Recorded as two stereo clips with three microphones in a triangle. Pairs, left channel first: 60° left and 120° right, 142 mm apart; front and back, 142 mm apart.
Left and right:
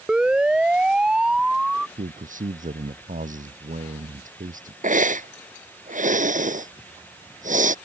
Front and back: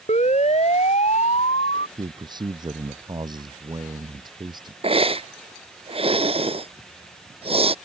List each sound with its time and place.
0.1 s a siren: 35° right
2.0 s a man speaking: 125° right
4.8 s a hiss: 135° right